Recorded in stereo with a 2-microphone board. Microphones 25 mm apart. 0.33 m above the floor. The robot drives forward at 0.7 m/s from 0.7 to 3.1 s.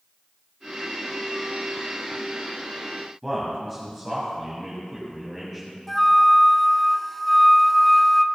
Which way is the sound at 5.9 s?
10° left (ahead or behind).